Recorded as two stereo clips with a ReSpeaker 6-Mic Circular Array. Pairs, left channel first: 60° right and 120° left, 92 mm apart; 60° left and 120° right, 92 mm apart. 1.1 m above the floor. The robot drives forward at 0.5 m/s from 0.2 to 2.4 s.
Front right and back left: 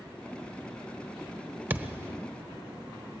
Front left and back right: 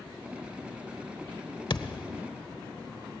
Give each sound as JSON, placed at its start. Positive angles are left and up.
{"t": 1.7, "sound": "a thud", "azimuth_deg": 55, "distance_m": 1.2}